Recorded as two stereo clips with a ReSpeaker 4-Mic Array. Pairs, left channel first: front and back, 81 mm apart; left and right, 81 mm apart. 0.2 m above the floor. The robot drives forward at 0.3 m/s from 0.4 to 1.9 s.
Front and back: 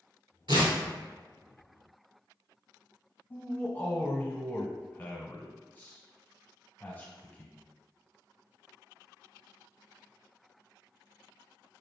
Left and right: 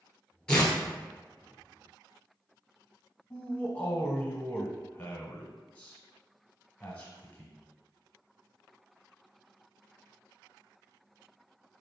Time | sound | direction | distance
0.5 | tearing paper | 170° left | 1.3 m
3.3 | a man speaking | 40° left | 1.1 m